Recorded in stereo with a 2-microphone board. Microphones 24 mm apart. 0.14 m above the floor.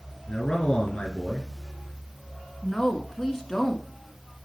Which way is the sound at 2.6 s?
5° left (ahead or behind).